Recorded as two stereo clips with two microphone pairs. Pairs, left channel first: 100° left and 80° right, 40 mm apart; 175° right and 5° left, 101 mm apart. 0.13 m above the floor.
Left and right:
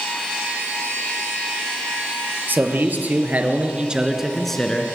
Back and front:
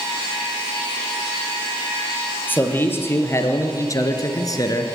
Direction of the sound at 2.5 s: 105° right.